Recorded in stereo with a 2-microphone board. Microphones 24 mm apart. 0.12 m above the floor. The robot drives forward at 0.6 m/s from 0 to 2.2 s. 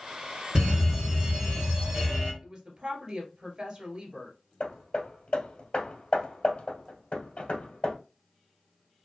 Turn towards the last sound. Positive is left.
turn(degrees=50)  # may be behind; listen again after turning